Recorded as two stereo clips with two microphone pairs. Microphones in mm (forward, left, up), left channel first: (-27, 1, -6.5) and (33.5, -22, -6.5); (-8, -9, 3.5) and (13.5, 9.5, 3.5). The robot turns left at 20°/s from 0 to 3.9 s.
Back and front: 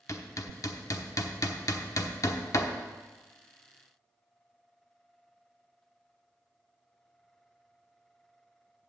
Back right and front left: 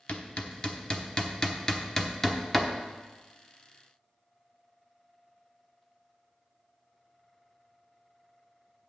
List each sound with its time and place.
0.1 s hammering: 170° right, 0.9 m; by 2.7 s 135° left, 0.9 m